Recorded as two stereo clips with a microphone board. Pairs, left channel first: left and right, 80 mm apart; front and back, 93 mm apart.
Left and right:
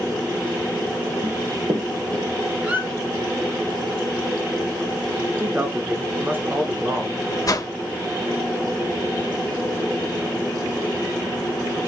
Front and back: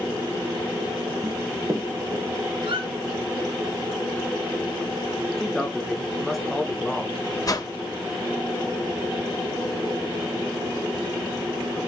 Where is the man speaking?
90° right, 0.8 m.